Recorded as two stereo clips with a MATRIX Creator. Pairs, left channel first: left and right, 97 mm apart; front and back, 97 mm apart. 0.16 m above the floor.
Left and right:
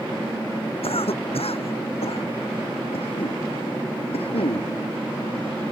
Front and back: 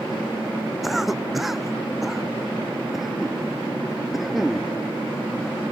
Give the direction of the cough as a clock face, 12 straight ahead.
9 o'clock.